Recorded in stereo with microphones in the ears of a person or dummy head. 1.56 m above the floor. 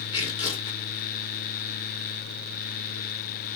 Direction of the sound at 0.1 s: 30° left (ahead or behind).